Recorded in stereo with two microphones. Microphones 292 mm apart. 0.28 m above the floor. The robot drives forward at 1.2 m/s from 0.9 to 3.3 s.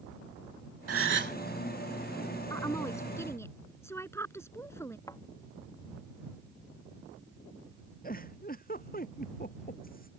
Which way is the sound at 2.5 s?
10° left (ahead or behind).